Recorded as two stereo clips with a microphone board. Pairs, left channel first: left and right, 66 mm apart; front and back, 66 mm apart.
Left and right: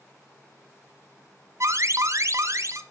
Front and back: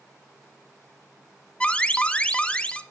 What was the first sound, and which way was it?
An alarm, 70° right.